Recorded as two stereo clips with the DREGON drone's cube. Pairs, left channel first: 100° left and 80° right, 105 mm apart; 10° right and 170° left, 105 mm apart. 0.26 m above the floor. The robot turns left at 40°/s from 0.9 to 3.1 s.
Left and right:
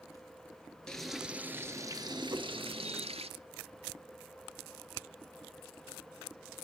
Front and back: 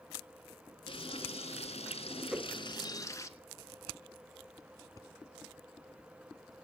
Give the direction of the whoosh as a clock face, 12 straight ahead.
4 o'clock.